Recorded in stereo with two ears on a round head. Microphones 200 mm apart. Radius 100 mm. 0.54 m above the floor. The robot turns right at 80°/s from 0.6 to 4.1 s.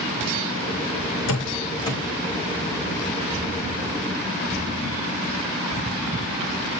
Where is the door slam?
65° left (ahead or behind), 1.8 m; by 2.0 s 10° left (ahead or behind), 1.8 m.